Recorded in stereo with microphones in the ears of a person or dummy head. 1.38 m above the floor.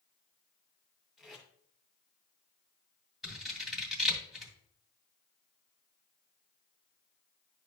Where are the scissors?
5° right (ahead or behind), 2 m.